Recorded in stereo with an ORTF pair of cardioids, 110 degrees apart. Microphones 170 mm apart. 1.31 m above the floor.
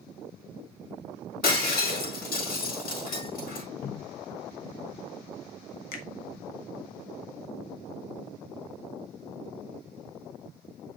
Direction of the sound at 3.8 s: 60° left.